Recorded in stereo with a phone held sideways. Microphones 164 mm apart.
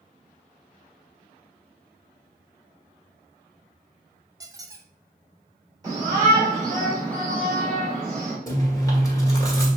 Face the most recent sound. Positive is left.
turn(degrees=20)  # may be behind; listen again after turning